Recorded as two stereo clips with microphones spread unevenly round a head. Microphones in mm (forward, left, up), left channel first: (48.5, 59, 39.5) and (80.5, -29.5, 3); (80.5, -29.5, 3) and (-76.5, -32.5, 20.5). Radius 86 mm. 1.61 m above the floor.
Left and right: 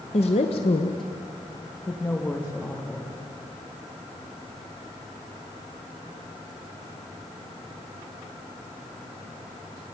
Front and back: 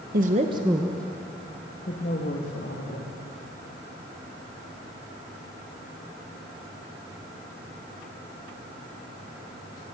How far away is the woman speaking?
About 1.5 m.